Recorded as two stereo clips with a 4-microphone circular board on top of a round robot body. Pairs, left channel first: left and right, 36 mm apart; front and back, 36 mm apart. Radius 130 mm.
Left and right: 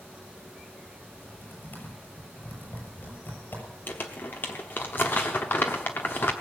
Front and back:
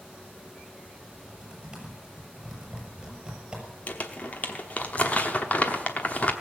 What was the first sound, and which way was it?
Typing on a keyboard, 115° left.